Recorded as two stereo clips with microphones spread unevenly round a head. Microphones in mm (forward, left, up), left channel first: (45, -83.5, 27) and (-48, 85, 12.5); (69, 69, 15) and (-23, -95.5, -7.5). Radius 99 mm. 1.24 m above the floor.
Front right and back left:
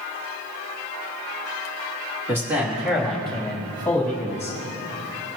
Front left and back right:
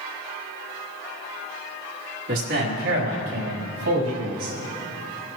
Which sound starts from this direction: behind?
A man speaking, at 2.3 s.